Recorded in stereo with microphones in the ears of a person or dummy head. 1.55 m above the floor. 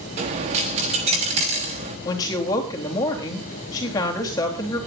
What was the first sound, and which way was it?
A dropped coin, 35° right (ahead or behind).